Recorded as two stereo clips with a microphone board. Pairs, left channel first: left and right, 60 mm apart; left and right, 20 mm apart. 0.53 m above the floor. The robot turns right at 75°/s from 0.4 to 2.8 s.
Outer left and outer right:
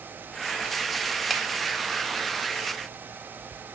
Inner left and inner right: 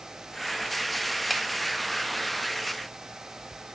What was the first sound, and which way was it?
A finger snap, centre (ahead or behind).